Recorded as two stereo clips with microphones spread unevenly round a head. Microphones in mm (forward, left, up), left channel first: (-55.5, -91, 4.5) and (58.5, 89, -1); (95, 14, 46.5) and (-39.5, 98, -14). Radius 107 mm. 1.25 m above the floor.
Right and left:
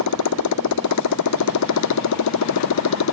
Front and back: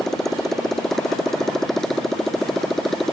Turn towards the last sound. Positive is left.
turn(degrees=-120)